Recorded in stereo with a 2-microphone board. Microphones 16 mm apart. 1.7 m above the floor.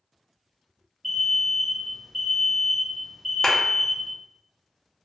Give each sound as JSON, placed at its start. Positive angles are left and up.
{"t": 1.0, "sound": "an alarm", "side_deg": 10, "distance_m": 0.8}
{"t": 3.4, "sound": "a clap", "side_deg": 40, "distance_m": 0.7}